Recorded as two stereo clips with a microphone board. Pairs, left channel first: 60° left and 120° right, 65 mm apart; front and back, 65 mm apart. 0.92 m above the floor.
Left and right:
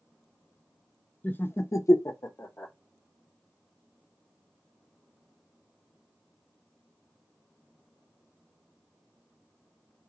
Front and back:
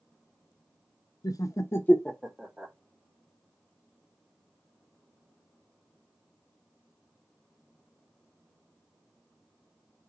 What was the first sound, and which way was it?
Laughter, straight ahead.